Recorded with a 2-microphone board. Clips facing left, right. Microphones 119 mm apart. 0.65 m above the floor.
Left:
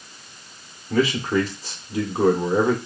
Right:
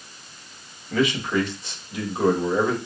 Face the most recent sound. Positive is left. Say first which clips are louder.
# left 2 dB
turn(degrees=35)  # may be behind; listen again after turning